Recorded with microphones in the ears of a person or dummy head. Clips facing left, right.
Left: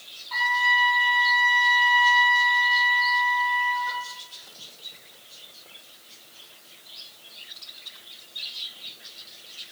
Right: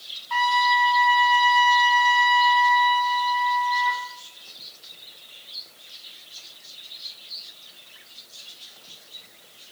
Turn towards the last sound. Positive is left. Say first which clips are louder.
# right 6 dB
turn(degrees=-65)  # may be behind; listen again after turning